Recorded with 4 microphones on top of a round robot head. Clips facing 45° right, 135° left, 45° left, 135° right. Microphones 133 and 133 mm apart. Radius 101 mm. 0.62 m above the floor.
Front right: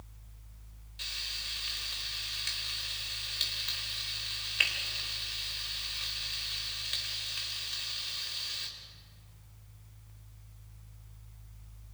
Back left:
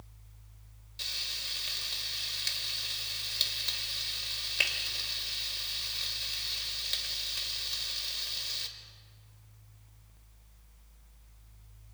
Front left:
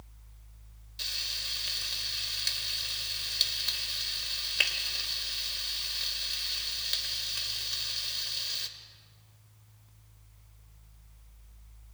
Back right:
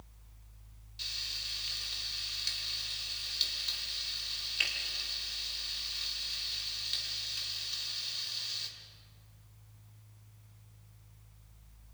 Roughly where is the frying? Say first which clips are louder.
Back left 1 dB, front left 5 dB; left.